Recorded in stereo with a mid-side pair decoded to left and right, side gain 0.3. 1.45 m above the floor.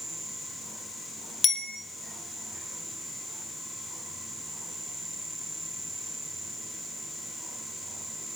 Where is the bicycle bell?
60° left, 2.5 m.